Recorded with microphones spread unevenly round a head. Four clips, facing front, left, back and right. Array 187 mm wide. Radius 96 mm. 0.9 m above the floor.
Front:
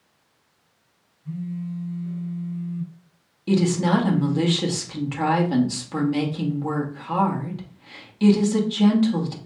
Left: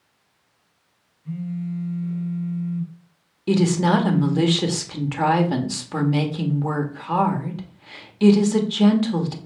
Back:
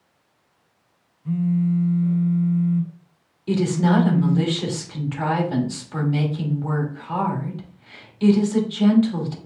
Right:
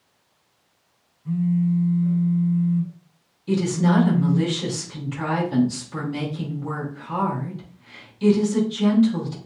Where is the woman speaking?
70° left, 1.5 m.